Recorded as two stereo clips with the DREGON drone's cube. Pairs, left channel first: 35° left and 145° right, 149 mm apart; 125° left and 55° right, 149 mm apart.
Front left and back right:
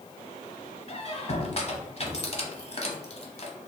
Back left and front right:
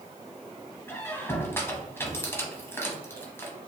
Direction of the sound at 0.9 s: 55° left.